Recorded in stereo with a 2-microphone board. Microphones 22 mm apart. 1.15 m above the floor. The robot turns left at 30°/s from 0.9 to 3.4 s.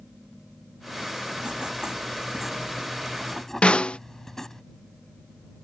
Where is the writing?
140° right; by 4.6 s 160° left.